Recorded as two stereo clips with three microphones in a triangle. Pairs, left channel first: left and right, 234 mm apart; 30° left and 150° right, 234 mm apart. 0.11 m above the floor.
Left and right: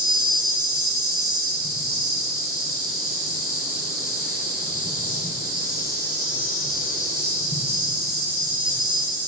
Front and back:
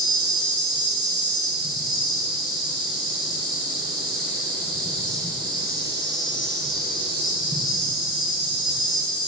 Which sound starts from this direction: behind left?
An insect, at 0.0 s.